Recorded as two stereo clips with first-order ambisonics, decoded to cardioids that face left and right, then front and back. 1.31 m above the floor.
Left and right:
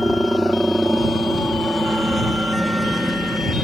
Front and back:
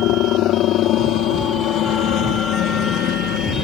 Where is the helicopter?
Straight ahead.